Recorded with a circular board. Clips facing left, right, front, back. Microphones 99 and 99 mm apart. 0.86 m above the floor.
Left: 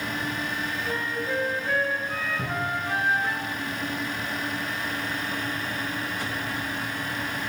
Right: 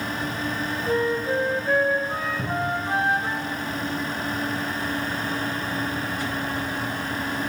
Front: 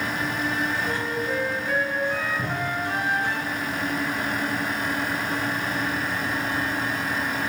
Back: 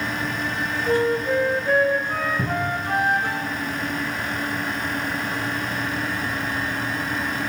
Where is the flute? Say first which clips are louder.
Right 9 dB, back 7 dB; 145° right, 1.2 m.